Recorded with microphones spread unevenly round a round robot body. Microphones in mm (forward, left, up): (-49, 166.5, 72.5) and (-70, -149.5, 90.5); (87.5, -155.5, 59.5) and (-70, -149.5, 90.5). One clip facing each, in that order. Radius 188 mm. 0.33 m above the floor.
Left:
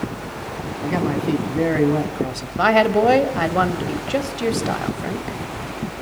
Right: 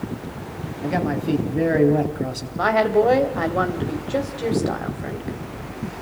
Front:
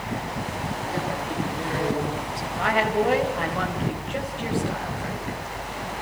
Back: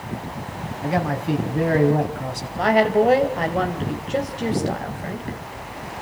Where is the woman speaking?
120° left, 2.5 m.